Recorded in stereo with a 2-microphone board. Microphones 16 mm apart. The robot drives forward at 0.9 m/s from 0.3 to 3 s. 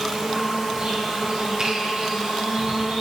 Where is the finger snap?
50° right (ahead or behind), 6.5 m; by 1.7 s 55° right (ahead or behind), 6.5 m.